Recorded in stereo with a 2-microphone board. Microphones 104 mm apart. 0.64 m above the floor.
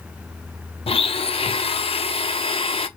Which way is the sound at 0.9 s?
65° left (ahead or behind).